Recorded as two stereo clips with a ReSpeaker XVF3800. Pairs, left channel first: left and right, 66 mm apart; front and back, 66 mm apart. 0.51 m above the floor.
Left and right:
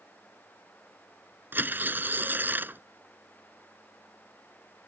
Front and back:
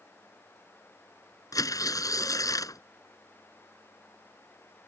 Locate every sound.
1.5 s tearing paper: 30° right